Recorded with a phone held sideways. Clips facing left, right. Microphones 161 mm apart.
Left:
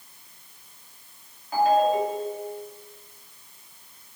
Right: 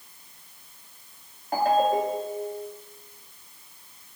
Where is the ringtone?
50° right (ahead or behind), 2 m.